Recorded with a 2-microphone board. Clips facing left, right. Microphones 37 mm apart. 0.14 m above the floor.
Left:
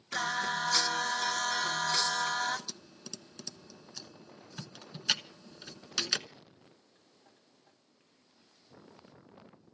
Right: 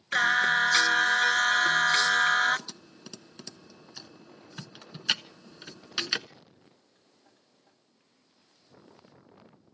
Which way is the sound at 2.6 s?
20° right (ahead or behind).